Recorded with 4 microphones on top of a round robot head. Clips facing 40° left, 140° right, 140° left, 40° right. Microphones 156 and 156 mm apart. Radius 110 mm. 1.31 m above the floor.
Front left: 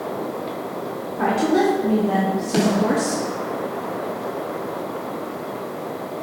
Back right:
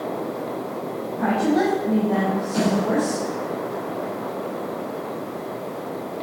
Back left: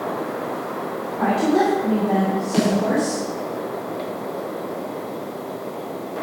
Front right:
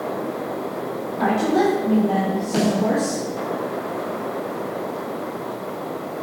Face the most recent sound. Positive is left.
turn(degrees=45)